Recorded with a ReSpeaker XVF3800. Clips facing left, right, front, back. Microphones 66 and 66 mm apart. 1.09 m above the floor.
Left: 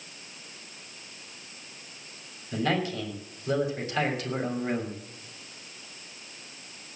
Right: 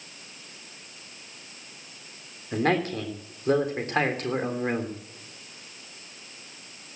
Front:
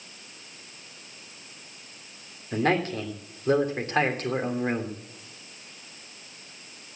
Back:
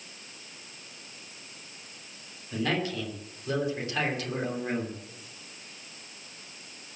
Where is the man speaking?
45° right, 3 m.